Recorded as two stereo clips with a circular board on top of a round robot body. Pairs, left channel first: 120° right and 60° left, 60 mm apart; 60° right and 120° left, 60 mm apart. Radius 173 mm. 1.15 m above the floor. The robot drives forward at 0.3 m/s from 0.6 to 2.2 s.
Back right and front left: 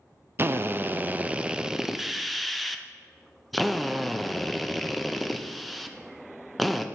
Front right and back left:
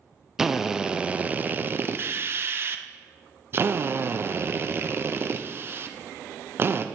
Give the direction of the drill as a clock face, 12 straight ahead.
11 o'clock.